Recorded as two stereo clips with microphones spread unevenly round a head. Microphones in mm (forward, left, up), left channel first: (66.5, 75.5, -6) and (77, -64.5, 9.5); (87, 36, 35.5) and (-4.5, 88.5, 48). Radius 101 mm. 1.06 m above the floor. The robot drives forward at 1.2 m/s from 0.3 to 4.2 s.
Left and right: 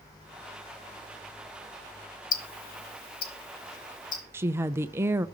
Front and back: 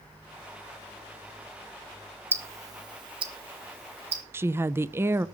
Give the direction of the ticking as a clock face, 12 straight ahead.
9 o'clock.